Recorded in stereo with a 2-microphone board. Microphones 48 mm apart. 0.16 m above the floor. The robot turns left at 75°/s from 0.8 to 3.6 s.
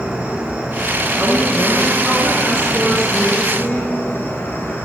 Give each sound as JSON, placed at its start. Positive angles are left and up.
{"t": 0.0, "sound": "an insect", "azimuth_deg": -35, "distance_m": 1.1}
{"t": 1.2, "sound": "a woman speaking", "azimuth_deg": -85, "distance_m": 1.5}